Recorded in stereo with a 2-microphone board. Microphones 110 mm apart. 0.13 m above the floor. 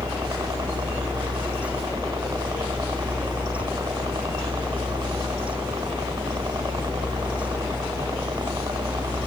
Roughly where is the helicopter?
Right.